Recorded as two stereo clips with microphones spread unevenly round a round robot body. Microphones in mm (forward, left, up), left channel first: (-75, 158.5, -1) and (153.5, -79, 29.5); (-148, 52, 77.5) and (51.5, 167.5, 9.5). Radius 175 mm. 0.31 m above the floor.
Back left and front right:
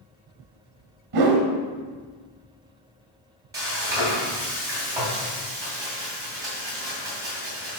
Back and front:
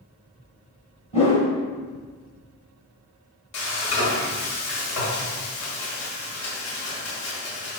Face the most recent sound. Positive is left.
turn(degrees=-130)